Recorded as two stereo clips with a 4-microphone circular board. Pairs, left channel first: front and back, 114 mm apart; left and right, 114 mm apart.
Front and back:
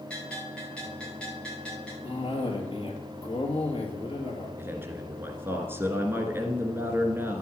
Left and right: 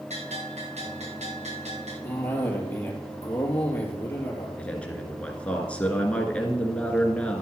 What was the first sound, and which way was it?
A bell, 80° right.